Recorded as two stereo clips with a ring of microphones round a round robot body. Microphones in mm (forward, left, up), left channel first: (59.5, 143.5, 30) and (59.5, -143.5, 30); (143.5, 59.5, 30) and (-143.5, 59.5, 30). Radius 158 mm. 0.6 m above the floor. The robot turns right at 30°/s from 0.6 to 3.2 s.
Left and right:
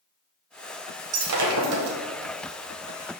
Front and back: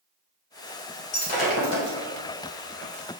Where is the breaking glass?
70° right, 1.4 m; by 2.0 s 45° right, 1.4 m.